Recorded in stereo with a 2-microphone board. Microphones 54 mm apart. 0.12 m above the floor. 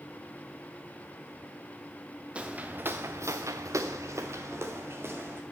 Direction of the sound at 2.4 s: 25° right (ahead or behind).